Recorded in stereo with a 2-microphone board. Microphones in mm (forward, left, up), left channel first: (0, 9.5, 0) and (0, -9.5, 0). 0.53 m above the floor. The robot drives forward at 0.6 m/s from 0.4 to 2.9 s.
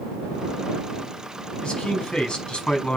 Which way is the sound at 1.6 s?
55° left (ahead or behind).